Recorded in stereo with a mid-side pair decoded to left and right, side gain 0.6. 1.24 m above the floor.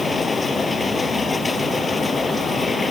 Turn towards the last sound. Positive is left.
turn(degrees=20)